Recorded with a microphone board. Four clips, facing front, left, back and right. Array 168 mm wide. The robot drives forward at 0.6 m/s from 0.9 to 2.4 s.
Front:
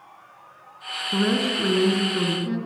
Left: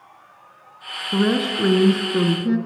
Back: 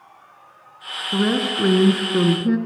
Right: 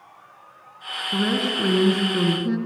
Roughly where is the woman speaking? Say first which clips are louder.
Left 4 dB, back 2 dB; behind left.